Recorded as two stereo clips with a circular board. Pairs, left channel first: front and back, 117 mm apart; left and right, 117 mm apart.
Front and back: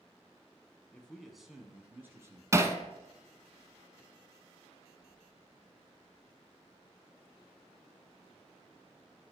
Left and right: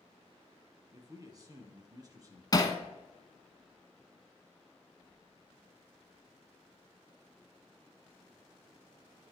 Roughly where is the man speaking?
Right.